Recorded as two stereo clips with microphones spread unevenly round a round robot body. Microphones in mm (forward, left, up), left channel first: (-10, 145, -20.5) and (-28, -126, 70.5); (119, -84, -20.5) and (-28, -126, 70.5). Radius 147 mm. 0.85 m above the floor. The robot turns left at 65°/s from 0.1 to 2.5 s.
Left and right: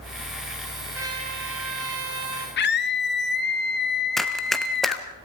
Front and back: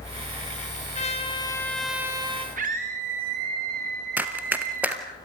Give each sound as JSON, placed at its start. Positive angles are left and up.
{"t": 0.9, "sound": "a trumpet", "azimuth_deg": -5, "distance_m": 3.0}
{"t": 2.6, "sound": "a scream", "azimuth_deg": 130, "distance_m": 1.7}
{"t": 4.2, "sound": "running footsteps", "azimuth_deg": -160, "distance_m": 1.0}